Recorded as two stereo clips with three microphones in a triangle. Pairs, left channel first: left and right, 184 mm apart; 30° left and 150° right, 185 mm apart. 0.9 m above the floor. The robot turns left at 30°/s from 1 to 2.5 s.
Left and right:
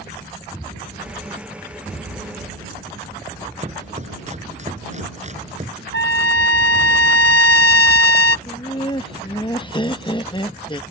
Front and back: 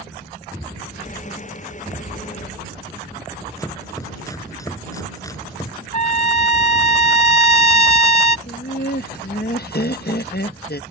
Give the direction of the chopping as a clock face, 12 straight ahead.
1 o'clock.